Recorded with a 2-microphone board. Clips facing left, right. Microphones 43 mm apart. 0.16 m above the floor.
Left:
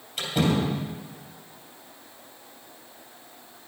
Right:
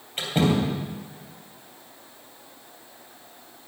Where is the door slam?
35° right (ahead or behind), 3 m.